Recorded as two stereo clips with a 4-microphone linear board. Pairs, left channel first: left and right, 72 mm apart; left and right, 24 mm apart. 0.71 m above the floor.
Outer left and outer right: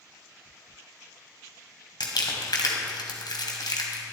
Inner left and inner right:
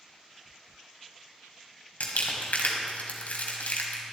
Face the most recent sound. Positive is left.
turn(degrees=85)